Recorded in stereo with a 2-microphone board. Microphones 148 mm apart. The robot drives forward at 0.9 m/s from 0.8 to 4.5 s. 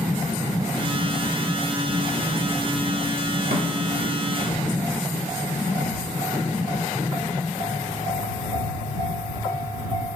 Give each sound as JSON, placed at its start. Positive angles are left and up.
{"t": 3.5, "sound": "a snare drum", "side_deg": -75, "distance_m": 1.6}